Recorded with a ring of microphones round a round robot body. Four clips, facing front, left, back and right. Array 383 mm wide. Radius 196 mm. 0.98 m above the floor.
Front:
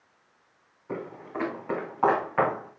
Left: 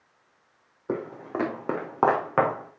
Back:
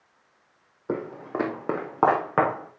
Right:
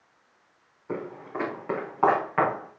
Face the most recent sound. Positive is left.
turn(degrees=140)